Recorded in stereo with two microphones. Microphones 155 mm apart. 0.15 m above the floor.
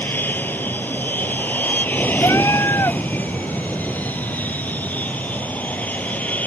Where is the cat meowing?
20° left (ahead or behind).